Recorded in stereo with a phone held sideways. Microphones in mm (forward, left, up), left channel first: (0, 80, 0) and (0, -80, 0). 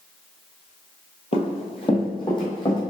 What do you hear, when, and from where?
1.3 s running footsteps: 40° left (ahead or behind), 1.0 m; by 2.8 s 25° left (ahead or behind), 2.5 m